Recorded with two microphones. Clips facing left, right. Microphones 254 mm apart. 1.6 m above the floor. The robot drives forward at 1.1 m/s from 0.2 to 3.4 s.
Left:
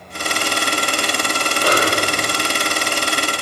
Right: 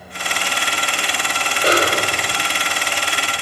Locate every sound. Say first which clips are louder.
1.6 s a snare drum: right 1 dB; 20° right (ahead or behind), 1.5 m; by 2.4 s 25° right (ahead or behind), 1.3 m